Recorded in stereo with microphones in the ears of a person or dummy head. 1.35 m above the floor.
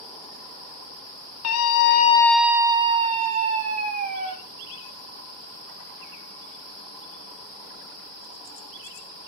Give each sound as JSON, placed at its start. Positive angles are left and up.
{"t": 1.4, "sound": "a scream", "side_deg": 85, "distance_m": 0.9}